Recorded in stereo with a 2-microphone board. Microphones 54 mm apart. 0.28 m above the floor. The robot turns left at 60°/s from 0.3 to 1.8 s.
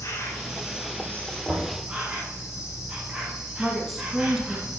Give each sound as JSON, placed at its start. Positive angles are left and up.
{"t": 0.0, "sound": "an insect", "azimuth_deg": 75, "distance_m": 4.0}
{"t": 1.4, "sound": "knocking", "side_deg": 5, "distance_m": 4.5}
{"t": 3.6, "sound": "a woman speaking", "side_deg": -5, "distance_m": 2.0}